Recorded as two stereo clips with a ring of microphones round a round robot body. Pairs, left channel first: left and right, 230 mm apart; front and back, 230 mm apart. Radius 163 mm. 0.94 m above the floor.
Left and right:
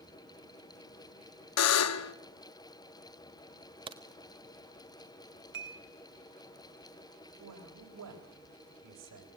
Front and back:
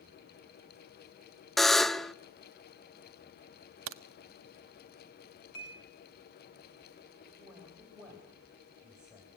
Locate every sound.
1.6 s a buzzer: 90° left, 0.9 m
3.9 s a crack: 160° right, 0.6 m
5.5 s dishes clattering: 55° right, 4 m
7.4 s a man speaking: 90° right, 4 m